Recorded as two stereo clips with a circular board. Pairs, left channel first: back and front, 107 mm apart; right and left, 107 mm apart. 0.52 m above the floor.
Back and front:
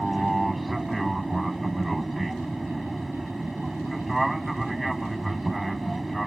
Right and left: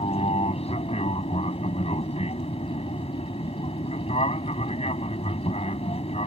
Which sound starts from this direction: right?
An aircraft, at 0.0 s.